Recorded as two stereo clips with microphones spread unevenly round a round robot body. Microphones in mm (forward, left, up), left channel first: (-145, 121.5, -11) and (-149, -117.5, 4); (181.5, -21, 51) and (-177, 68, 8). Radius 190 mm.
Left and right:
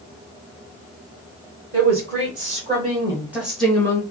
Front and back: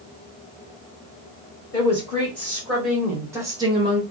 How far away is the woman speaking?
About 1.5 m.